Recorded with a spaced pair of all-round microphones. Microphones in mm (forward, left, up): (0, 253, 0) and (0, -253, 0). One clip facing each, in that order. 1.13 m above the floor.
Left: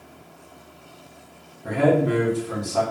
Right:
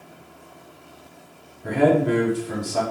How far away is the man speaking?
About 0.9 m.